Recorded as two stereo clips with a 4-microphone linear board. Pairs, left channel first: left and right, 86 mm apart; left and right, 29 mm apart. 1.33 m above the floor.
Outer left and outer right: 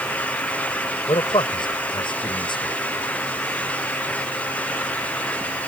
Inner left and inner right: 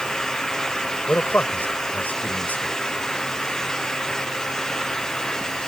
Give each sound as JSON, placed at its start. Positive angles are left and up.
{"t": 1.1, "sound": "a man speaking", "side_deg": 65}